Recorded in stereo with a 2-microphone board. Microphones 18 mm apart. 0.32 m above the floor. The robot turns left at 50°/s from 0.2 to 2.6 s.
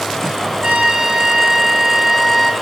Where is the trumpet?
95° right, 4.5 m; by 2.5 s 170° left, 4.5 m.